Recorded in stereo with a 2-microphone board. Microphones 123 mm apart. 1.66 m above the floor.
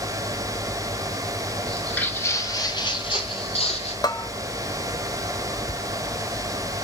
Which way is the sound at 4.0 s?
35° left (ahead or behind).